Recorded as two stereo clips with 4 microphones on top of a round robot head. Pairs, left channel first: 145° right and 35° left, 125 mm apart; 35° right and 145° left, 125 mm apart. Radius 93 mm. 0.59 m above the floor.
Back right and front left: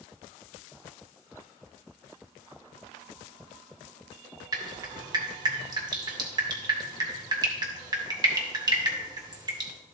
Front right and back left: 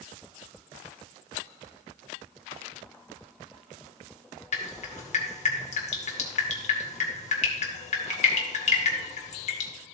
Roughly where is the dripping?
Ahead.